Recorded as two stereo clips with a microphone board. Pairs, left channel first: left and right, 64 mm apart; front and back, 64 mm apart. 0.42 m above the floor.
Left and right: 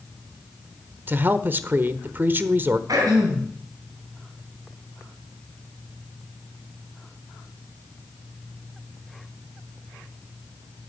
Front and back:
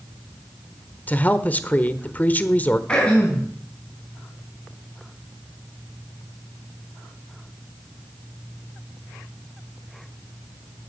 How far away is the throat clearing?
About 4.5 m.